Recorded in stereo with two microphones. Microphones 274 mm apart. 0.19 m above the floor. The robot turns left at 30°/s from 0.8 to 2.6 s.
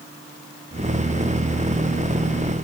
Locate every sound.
Only background noise.